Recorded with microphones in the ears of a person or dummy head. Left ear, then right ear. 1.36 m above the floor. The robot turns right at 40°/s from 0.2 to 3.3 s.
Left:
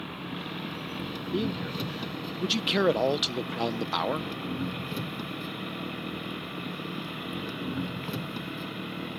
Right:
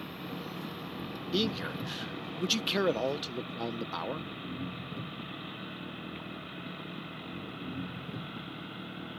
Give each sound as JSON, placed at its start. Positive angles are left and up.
{"t": 0.0, "sound": "an engine running", "azimuth_deg": -15}
{"t": 1.3, "sound": "a man speaking", "azimuth_deg": -55}